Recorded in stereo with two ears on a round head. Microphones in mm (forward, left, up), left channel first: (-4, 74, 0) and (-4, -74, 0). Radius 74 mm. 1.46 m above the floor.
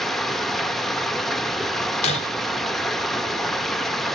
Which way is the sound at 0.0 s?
Centre (ahead or behind).